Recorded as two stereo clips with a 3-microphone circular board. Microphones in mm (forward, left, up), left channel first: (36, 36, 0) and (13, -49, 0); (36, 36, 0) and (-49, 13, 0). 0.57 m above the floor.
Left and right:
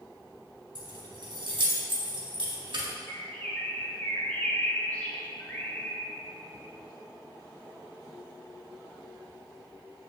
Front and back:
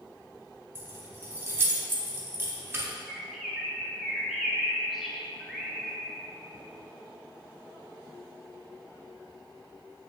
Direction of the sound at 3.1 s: 110° left.